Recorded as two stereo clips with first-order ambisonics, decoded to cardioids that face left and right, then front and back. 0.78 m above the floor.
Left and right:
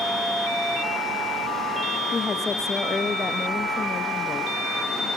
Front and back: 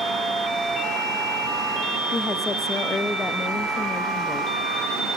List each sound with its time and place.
2.1 s a woman speaking: 50° left, 0.6 m